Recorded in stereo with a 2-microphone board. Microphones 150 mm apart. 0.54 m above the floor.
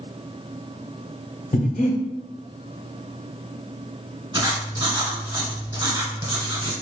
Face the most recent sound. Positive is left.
turn(degrees=-35)  # may be behind; listen again after turning